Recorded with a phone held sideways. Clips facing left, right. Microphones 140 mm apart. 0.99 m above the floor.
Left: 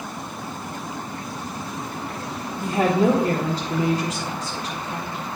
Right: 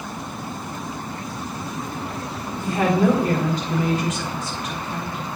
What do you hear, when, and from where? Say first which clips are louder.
2.6 s a woman speaking: even; 35° left (ahead or behind), 1.1 m